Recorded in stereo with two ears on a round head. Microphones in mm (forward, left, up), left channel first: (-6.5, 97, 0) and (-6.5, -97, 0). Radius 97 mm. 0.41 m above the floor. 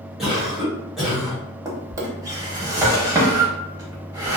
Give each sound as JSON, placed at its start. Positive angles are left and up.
{"t": 0.2, "sound": "a cough", "side_deg": -5, "distance_m": 1.5}
{"t": 1.6, "sound": "a drawer", "side_deg": -15, "distance_m": 0.6}